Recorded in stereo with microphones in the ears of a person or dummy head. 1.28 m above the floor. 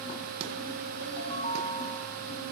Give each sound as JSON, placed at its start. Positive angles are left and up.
{"t": 1.0, "sound": "a ringtone", "side_deg": -65, "distance_m": 4.0}